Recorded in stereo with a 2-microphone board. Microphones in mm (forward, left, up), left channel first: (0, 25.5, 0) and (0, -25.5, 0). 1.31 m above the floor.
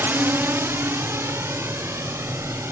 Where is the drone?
45° right (ahead or behind); by 2.7 s 60° right (ahead or behind).